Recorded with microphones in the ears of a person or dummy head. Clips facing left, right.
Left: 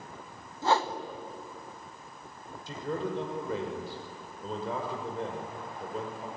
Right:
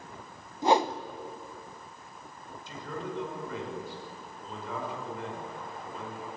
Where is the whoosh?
15° right (ahead or behind), 0.9 m.